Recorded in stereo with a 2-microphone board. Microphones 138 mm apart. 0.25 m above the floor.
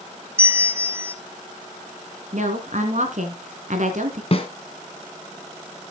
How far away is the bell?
About 1.0 m.